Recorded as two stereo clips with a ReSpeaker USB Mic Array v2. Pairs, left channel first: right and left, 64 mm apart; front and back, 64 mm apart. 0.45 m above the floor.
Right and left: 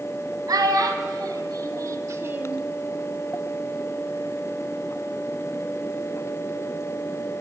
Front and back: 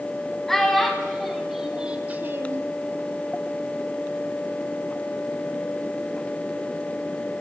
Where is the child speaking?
85° left, 2 m; by 2.6 s 165° left, 0.6 m.